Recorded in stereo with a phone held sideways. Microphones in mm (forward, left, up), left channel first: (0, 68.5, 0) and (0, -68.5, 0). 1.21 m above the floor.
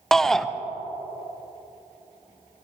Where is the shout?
5° left (ahead or behind), 0.5 m.